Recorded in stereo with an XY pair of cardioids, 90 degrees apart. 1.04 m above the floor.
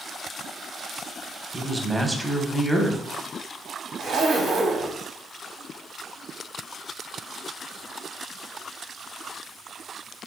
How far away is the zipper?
About 0.6 m.